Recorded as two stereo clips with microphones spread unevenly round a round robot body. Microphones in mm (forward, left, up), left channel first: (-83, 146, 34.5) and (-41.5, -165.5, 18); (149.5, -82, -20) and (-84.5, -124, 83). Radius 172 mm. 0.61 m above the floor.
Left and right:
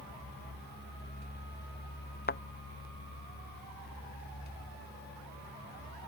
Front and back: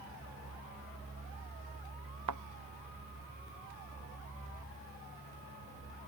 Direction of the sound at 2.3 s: 155° left.